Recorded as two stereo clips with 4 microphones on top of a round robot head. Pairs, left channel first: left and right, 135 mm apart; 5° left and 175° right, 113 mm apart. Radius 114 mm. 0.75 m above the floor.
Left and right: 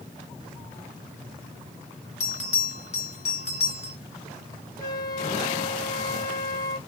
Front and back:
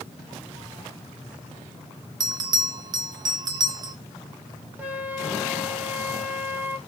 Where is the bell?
145° left, 0.6 m.